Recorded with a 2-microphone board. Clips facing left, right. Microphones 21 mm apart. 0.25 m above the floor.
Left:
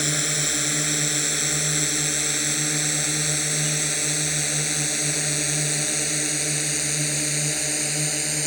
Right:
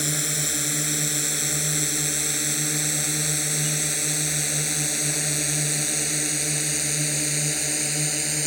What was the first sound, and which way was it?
A drone, 10° left (ahead or behind).